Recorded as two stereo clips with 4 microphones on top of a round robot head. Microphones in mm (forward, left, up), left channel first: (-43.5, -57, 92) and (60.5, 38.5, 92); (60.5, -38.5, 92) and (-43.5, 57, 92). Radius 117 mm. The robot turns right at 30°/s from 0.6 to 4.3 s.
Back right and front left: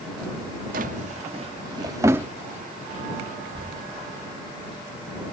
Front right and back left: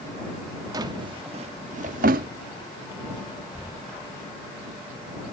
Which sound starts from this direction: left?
A drawer, at 0.7 s.